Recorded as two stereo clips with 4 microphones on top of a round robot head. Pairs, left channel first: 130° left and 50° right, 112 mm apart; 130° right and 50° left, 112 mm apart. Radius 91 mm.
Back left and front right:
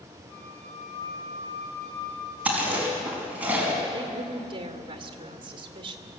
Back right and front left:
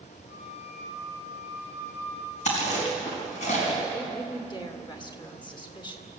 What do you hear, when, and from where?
0.3 s a flute: 165° left, 8.5 m
2.5 s chewing: 125° right, 4.5 m
3.9 s a woman speaking: 90° right, 2.5 m